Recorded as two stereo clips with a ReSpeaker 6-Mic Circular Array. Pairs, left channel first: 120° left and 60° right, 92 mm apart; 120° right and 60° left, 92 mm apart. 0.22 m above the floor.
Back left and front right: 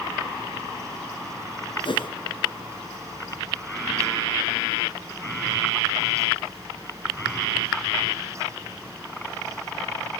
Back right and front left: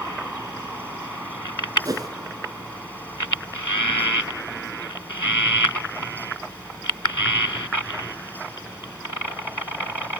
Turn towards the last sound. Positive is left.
turn(degrees=105)